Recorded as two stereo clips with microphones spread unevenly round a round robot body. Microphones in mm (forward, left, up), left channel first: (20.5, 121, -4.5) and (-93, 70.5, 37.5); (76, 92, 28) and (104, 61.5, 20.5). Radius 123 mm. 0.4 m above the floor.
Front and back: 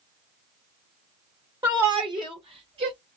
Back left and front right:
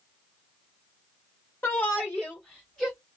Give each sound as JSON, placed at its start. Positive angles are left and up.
{"t": 1.6, "sound": "a shout", "azimuth_deg": 140, "distance_m": 1.2}